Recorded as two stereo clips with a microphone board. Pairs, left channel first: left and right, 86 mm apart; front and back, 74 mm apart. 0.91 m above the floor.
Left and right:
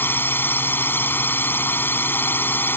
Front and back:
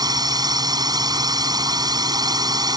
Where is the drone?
155° left.